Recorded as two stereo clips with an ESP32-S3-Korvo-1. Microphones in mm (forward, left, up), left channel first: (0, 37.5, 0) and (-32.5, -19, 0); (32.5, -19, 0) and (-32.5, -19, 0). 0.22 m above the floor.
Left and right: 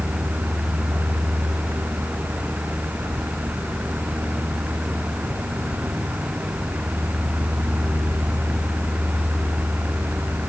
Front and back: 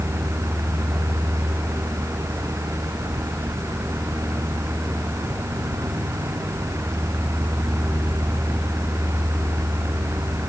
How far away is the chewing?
I don't hear chewing.